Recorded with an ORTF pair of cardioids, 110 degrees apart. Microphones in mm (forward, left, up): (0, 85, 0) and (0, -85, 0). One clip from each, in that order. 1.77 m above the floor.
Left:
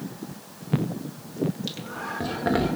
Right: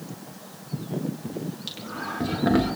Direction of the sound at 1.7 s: 5° left.